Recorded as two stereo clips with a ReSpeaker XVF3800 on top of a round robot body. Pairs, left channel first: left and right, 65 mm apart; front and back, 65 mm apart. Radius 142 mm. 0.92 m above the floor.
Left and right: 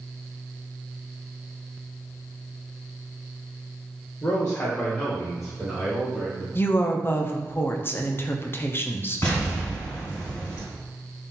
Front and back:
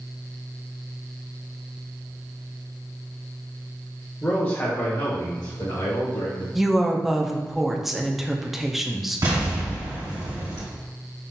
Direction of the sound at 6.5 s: 95° left.